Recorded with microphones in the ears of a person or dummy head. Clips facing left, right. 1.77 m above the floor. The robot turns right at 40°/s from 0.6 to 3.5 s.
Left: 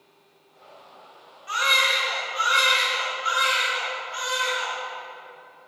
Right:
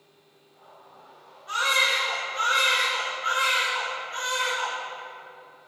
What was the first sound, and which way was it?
A baby crying, 140° left.